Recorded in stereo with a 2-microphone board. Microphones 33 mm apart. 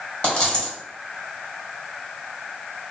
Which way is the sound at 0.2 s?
35° left (ahead or behind).